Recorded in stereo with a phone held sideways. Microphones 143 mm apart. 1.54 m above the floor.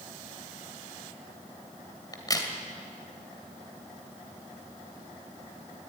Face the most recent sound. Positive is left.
turn(degrees=25)  # may be behind; listen again after turning